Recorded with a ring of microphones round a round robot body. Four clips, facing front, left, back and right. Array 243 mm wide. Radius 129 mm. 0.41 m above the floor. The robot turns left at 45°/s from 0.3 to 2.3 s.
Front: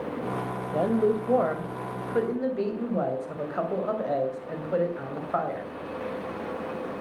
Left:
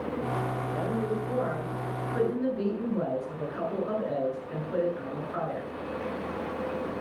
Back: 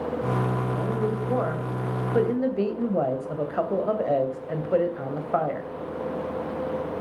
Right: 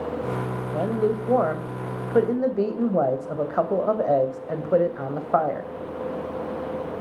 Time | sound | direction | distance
0.7 | a woman speaking | 40° right | 2.5 m